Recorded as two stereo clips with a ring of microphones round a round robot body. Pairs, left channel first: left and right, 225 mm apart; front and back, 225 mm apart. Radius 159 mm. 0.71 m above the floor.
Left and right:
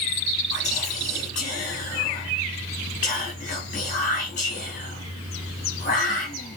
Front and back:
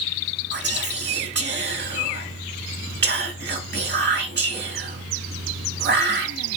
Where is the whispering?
150° left, 1.8 m.